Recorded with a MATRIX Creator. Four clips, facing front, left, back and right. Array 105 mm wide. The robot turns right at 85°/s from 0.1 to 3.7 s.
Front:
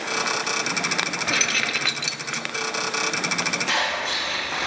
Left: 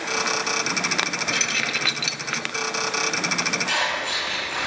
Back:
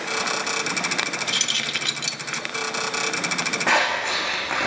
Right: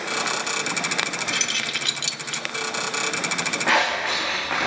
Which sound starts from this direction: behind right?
Scissors, at 3.7 s.